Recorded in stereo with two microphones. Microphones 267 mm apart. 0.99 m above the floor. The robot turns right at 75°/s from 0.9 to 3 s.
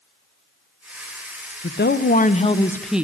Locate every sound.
1.6 s a woman speaking: 85° left, 0.6 m; by 3.0 s 175° right, 0.6 m